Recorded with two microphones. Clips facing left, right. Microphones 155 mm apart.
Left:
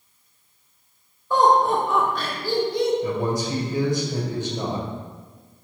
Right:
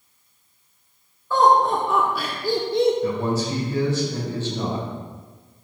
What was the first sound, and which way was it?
Laughter, 15° left (ahead or behind).